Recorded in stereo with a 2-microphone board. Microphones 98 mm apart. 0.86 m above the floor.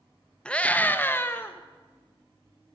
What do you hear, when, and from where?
0.5 s a scream: 10° left (ahead or behind), 0.8 m; by 1.6 s 20° left (ahead or behind), 0.9 m